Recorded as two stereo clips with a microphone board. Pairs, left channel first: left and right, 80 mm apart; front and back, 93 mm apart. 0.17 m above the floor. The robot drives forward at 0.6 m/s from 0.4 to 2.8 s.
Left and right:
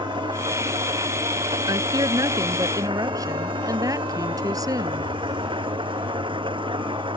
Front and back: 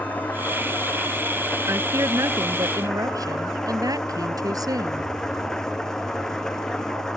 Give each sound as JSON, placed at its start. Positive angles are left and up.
{"t": 0.0, "sound": "an engine running", "azimuth_deg": -75}
{"t": 1.7, "sound": "a woman speaking", "azimuth_deg": -120}